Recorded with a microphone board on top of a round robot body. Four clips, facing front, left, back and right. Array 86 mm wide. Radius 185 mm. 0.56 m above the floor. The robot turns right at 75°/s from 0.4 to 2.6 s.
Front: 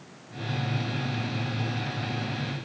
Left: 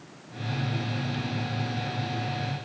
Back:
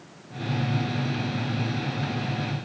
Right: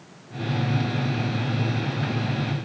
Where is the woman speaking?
No woman speaking in this recording.